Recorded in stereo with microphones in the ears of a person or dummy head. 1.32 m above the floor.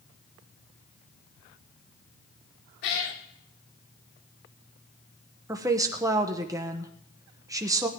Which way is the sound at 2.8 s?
65° left (ahead or behind).